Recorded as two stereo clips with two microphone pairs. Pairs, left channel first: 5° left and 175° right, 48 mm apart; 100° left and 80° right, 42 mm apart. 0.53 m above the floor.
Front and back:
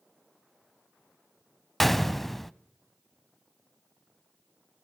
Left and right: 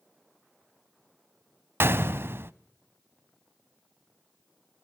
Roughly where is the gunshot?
Right.